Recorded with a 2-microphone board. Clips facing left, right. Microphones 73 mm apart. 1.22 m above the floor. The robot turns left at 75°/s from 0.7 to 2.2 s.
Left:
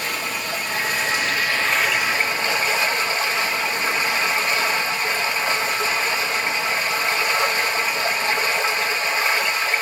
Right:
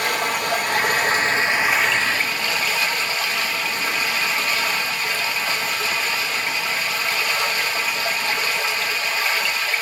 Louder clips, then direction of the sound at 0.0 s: Right 5 dB; 95° right.